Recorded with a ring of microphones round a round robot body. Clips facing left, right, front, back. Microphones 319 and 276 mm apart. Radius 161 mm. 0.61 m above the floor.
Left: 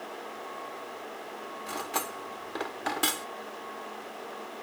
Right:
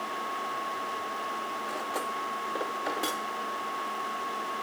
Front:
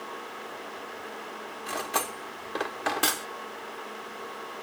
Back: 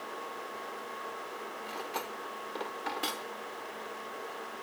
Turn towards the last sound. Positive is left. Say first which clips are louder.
# even, front 7 dB
turn(degrees=25)